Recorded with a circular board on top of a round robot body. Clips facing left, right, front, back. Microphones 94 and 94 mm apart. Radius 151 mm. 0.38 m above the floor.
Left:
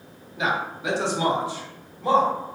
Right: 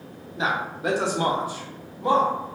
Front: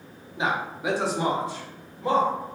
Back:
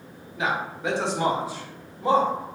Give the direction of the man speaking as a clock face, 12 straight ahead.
2 o'clock.